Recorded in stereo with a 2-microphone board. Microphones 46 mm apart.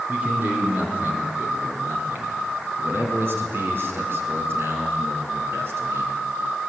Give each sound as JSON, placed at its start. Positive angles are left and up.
{"t": 0.1, "sound": "a man speaking", "side_deg": -35, "distance_m": 3.0}